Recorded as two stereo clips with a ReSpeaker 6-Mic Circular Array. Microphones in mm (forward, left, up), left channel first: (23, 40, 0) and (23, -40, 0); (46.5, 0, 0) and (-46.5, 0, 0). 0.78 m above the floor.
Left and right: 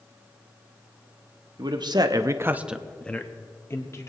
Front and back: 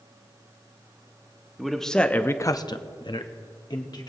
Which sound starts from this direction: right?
A man speaking, at 1.6 s.